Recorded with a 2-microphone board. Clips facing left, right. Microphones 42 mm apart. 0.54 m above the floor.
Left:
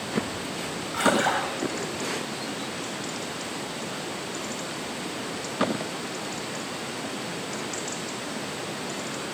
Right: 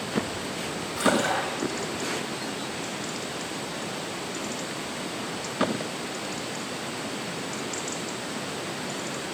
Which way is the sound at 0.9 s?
65° left (ahead or behind).